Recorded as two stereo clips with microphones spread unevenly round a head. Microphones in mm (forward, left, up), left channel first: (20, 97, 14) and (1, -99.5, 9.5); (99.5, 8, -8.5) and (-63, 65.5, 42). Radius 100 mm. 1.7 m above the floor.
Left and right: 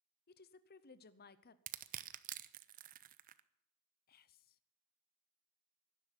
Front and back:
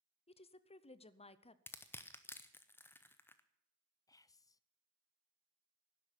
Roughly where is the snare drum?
No snare drum in this recording.